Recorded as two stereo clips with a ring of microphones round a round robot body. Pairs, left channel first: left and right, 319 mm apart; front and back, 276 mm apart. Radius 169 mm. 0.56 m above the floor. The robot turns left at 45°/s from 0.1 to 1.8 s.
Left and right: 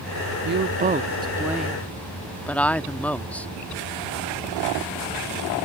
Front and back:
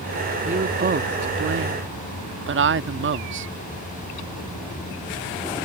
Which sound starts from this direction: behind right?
A woman speaking, at 0.5 s.